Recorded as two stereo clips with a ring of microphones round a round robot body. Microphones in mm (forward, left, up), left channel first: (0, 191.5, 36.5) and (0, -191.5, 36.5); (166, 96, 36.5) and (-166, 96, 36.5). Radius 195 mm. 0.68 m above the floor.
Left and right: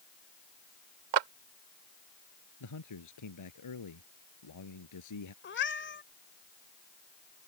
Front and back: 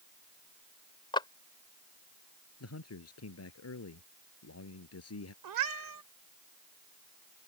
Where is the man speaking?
45° left.